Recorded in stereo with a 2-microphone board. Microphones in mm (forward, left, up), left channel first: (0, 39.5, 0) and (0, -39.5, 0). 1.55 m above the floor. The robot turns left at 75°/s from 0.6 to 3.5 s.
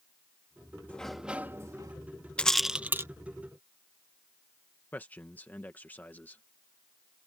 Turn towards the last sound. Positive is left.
turn(degrees=20)  # may be behind; listen again after turning